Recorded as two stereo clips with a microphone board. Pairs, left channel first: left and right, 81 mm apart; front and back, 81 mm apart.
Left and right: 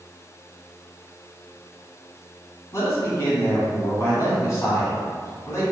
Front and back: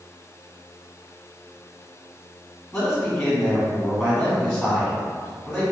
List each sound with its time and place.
2.7 s a man speaking: 80° left, 1.2 m